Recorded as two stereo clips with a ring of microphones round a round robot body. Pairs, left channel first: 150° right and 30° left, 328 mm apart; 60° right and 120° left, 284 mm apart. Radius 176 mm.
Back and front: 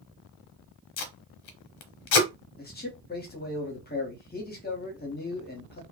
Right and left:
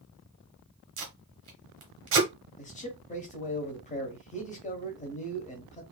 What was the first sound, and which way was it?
Tape being pulled, 175° left.